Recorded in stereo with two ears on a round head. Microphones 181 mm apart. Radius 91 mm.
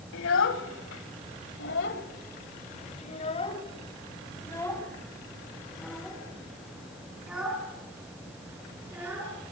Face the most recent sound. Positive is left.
turn(degrees=-10)  # may be behind; listen again after turning